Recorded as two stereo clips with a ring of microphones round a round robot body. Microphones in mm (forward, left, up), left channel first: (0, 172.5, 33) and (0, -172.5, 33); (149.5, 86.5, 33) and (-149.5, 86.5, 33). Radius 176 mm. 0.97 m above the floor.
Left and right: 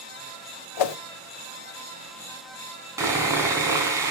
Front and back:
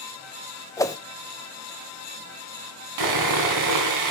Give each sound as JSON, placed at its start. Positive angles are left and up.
{"t": 0.8, "sound": "a whoosh", "azimuth_deg": 80, "distance_m": 0.8}
{"t": 3.0, "sound": "sawing", "azimuth_deg": -170, "distance_m": 2.0}